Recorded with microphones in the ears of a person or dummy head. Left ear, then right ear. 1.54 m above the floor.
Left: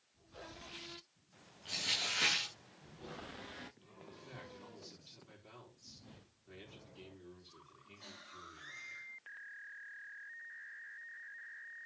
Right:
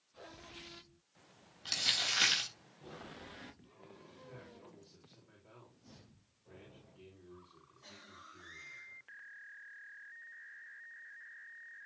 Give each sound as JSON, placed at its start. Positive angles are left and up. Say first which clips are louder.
{"t": 1.6, "sound": "crumpling", "louder": "right 3 dB", "side_deg": -50, "distance_m": 4.0}
{"t": 4.1, "sound": "a man speaking", "louder": "left 5 dB", "side_deg": 55, "distance_m": 4.5}